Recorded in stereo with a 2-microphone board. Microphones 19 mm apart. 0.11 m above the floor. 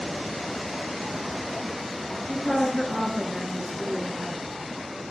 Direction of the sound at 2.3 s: 40° left (ahead or behind).